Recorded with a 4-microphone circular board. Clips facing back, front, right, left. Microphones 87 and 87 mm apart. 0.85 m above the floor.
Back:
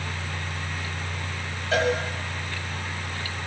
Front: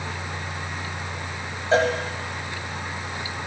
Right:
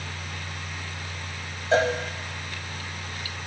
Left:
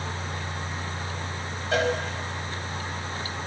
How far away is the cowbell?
About 0.8 m.